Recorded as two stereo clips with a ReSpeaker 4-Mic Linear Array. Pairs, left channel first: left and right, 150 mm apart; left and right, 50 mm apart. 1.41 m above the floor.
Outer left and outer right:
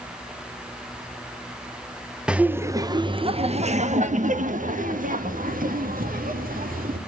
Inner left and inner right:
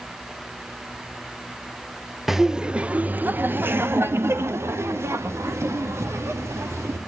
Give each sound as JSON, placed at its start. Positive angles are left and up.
{"t": 2.3, "sound": "laughter", "side_deg": -5, "distance_m": 0.9}